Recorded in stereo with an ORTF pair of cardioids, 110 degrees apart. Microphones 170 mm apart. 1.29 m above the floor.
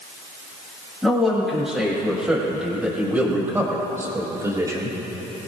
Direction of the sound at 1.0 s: Straight ahead.